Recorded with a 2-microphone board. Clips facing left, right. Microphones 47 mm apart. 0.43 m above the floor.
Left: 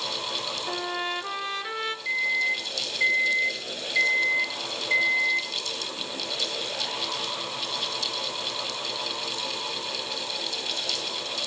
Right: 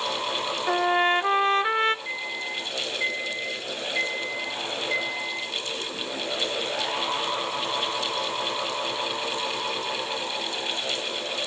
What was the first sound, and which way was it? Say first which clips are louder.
A trumpet: right 10 dB; 40° right (ahead or behind).